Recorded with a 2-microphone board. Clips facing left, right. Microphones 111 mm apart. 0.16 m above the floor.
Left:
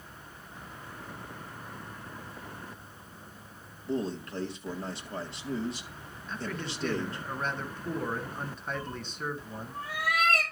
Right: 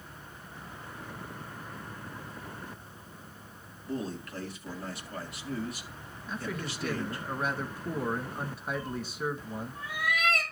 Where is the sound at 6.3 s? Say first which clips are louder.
Even; 10° right (ahead or behind), 1.4 m.